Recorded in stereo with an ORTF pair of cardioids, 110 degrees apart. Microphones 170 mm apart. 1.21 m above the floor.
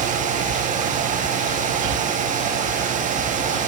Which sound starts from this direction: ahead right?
A fan, at 0.0 s.